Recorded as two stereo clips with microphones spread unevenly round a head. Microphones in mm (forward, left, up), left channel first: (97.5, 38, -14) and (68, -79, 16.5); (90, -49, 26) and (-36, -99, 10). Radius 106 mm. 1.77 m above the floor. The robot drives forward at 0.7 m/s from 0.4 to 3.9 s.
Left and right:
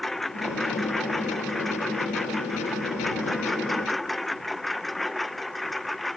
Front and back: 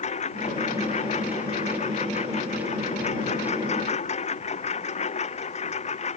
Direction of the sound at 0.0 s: 15° right.